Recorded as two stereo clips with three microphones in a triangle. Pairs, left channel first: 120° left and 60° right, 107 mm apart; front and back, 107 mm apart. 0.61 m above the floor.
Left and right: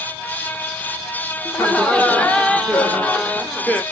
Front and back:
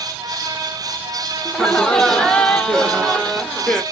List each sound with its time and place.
1.4 s laughter: 70° left, 0.9 m